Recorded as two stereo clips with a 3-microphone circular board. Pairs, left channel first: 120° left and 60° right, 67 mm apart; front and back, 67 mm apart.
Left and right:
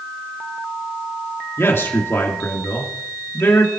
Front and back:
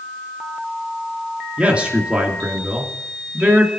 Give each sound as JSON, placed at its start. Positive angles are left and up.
{"t": 1.6, "sound": "a man speaking", "azimuth_deg": 120, "distance_m": 2.0}